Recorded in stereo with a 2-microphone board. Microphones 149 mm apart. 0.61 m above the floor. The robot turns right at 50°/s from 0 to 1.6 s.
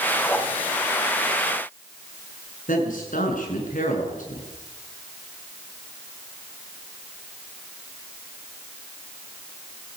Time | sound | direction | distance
0.3 | a whoosh | 15° left (ahead or behind) | 2.5 m
2.7 | a man speaking | 65° left (ahead or behind) | 7.5 m